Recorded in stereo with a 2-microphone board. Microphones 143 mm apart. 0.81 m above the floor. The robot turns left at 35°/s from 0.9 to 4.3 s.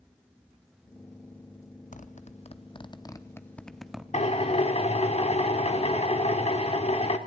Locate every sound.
1.9 s a zipper: 65° left (ahead or behind), 1.0 m; by 4.0 s 5° right (ahead or behind), 1.0 m
4.1 s a drill: 50° left (ahead or behind), 1.6 m; by 7.2 s 45° left (ahead or behind), 1.6 m